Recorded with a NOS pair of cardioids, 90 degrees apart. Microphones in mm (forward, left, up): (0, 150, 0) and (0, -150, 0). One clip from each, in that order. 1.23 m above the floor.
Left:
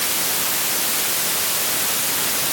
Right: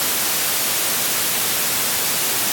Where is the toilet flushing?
I don't hear a toilet flushing.